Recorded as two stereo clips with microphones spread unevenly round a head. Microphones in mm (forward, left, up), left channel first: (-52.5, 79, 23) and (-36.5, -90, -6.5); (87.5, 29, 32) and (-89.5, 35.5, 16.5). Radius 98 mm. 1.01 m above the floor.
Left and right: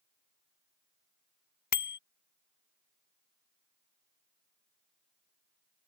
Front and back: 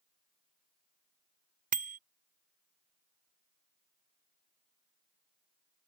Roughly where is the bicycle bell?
Behind left.